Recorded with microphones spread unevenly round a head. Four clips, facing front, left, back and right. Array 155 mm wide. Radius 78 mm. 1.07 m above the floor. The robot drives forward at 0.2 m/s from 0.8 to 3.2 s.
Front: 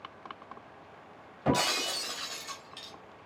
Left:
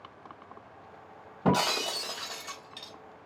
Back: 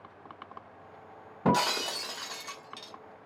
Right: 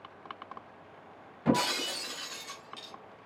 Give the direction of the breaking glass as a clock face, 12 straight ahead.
7 o'clock.